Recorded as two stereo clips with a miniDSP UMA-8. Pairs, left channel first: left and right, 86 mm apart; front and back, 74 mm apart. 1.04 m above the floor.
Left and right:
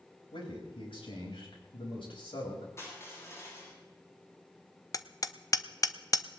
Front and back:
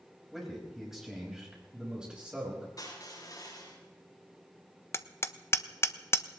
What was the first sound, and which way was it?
A man speaking, 90° left.